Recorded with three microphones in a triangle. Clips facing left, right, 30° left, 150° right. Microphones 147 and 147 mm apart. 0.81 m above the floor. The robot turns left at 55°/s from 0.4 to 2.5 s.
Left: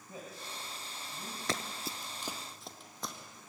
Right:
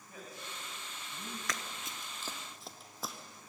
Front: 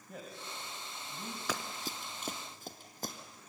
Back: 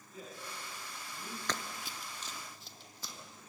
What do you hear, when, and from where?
0.1 s a man speaking: 30° left, 4.5 m; by 1.4 s 25° right, 4.5 m
1.5 s running footsteps: 105° left, 0.9 m; by 3.1 s 5° right, 2.5 m